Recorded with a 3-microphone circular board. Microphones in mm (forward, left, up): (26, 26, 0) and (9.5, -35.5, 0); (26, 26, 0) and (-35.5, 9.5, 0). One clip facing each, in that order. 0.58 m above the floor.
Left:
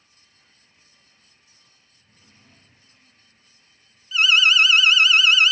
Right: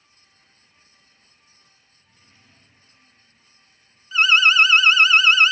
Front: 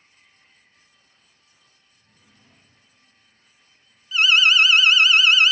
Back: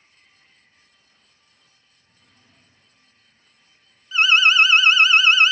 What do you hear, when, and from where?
1.9 s a drawer: 20° left, 9 m
4.1 s an alarm: 125° right, 0.8 m